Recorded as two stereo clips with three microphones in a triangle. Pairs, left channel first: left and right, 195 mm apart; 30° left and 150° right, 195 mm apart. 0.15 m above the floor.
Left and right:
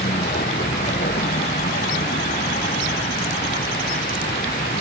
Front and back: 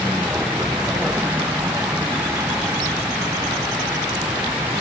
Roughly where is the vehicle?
Behind left.